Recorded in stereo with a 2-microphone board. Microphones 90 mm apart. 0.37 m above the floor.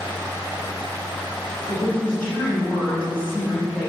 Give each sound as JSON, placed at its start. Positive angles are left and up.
{"t": 1.7, "sound": "a woman speaking", "side_deg": 15, "distance_m": 1.6}